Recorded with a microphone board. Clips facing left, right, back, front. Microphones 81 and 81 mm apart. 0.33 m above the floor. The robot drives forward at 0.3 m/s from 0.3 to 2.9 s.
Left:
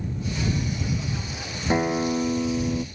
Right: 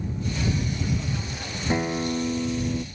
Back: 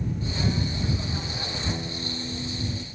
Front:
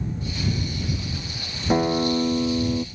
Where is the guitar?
20° left.